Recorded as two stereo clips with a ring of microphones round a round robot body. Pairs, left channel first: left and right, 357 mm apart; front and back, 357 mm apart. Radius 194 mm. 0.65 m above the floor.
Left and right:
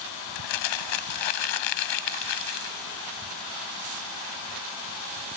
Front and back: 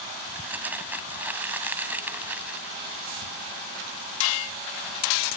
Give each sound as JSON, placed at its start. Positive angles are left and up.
{"t": 0.3, "sound": "crumpling", "azimuth_deg": 95}